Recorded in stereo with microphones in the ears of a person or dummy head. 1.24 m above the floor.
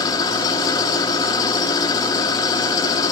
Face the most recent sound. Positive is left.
turn(degrees=20)  # may be behind; listen again after turning